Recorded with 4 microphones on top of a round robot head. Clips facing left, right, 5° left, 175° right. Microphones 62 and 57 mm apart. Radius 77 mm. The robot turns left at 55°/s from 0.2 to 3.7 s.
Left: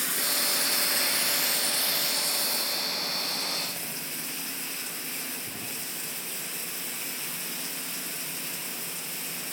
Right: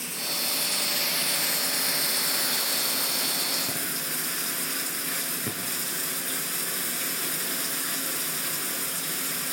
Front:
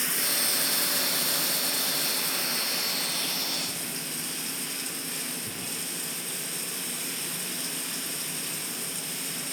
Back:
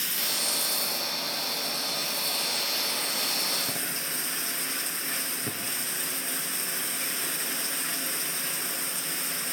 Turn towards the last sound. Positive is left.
turn(degrees=-120)